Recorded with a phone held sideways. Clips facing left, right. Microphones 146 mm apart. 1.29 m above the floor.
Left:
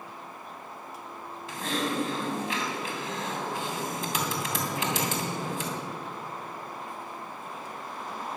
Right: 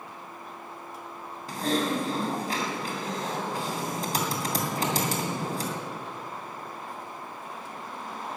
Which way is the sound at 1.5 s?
40° right (ahead or behind).